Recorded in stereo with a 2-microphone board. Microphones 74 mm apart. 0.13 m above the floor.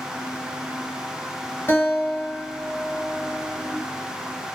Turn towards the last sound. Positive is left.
turn(degrees=30)  # may be behind; listen again after turning